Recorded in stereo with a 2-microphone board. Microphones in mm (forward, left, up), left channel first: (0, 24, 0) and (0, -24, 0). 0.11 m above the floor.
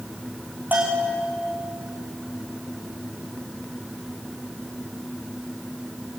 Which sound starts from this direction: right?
A bell, at 0.7 s.